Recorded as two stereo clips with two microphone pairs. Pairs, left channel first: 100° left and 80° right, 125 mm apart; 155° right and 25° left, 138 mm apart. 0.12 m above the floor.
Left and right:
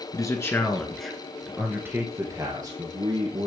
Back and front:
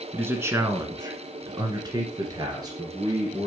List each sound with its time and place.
0.1 s a man speaking: 85° left, 1.3 m; by 3.5 s 35° right, 2.5 m